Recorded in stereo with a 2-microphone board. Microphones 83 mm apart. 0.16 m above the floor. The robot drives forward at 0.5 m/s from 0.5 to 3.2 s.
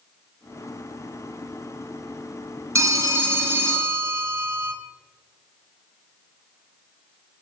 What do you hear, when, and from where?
2.8 s a phone ringing: 35° right (ahead or behind), 0.8 m; by 4.7 s 30° right (ahead or behind), 1.0 m